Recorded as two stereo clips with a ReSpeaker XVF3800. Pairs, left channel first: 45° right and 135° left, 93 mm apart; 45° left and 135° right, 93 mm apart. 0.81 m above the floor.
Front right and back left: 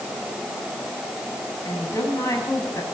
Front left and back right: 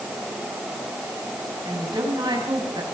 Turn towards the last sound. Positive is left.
turn(degrees=-100)